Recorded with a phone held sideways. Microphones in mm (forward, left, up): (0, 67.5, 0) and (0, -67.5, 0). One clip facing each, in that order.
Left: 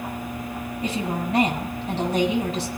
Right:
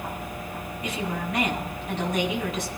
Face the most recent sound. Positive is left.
turn(degrees=30)  # may be behind; listen again after turning